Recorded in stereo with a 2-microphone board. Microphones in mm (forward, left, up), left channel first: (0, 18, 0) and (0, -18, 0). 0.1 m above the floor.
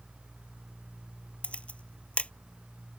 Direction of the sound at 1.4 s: 35° left (ahead or behind).